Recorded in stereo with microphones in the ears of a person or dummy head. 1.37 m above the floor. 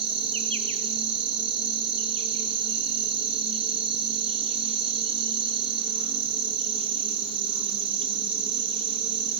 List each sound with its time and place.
0.0 s an insect: 35° right (ahead or behind), 2 m